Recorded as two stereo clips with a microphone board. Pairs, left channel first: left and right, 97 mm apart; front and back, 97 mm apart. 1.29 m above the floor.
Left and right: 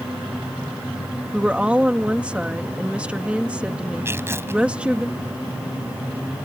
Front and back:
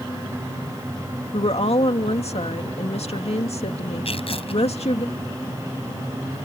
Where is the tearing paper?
25° right.